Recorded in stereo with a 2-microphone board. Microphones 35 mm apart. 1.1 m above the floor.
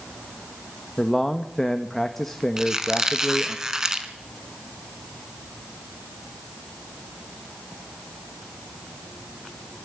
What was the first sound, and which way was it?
A man speaking, 10° left (ahead or behind).